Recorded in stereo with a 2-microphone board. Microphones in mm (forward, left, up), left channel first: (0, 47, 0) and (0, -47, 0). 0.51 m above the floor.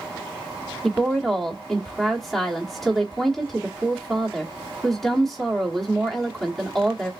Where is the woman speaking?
Centre (ahead or behind), 1.2 m.